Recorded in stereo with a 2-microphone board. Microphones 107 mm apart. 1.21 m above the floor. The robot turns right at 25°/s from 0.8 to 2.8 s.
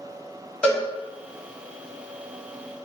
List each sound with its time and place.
0.6 s a cowbell: 15° left (ahead or behind), 1.3 m